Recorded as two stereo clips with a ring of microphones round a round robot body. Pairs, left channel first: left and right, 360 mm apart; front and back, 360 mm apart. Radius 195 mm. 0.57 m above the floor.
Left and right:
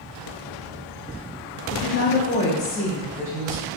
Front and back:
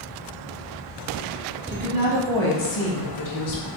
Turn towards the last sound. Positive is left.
turn(degrees=-15)